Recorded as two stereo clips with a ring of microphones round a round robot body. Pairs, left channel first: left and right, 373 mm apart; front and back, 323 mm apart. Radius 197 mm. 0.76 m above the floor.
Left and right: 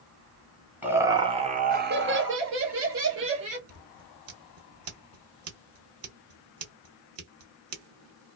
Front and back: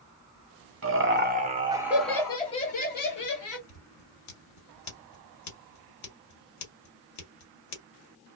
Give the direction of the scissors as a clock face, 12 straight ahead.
1 o'clock.